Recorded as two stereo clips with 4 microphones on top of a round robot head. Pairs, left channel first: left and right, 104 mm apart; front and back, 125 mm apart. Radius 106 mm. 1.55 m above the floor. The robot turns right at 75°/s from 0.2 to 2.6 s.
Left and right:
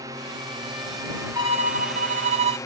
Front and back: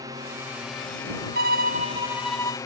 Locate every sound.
0.0 s a drone: 130° right; by 2.7 s 50° left
1.4 s a violin: 160° right; by 2.6 s 65° right